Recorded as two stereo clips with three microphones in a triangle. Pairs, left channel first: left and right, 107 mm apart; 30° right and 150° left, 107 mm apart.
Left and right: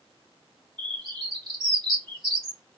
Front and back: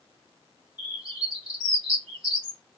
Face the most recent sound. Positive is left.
turn(degrees=-65)